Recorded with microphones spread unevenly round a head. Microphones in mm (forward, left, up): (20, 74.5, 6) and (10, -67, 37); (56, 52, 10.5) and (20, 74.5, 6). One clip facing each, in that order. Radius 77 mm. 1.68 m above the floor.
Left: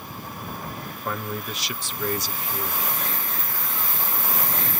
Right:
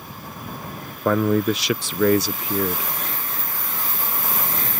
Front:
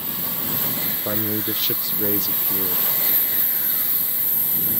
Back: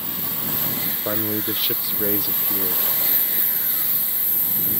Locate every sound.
1.1 s a man speaking: 120° right